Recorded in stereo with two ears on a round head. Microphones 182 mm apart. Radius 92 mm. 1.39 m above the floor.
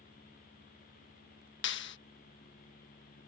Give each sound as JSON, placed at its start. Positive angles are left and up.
{"t": 1.6, "sound": "a clap", "side_deg": 60}